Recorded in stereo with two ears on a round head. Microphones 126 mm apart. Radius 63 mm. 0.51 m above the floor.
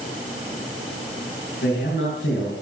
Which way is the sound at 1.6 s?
75° left (ahead or behind).